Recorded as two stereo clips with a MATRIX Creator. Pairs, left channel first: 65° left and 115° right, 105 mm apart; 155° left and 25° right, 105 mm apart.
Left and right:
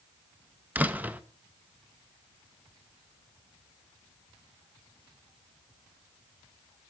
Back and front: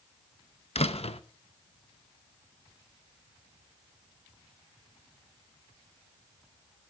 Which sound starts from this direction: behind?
A door slam, at 0.8 s.